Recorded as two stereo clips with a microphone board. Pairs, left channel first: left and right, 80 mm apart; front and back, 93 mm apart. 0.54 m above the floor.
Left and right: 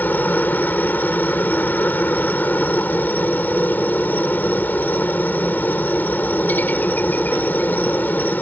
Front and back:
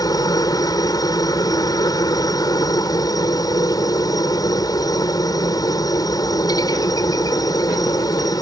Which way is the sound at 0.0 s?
30° left.